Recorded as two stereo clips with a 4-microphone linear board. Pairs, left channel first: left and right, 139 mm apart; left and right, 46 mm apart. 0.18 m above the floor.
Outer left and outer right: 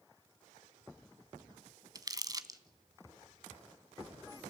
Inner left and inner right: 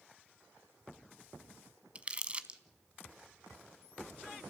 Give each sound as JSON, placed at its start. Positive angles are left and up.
{"t": 1.9, "sound": "crumpling", "side_deg": -25, "distance_m": 0.9}